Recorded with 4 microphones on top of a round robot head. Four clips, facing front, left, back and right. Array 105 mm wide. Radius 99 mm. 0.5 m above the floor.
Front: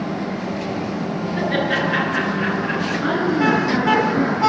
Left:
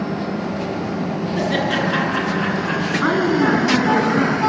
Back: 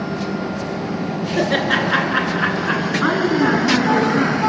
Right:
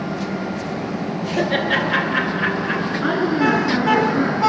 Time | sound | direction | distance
1.4 | laughter | 170° left | 8.5 m
3.0 | a woman speaking | 135° left | 7 m